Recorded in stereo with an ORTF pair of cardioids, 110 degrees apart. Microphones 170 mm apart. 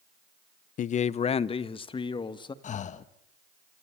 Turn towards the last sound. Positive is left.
turn(degrees=45)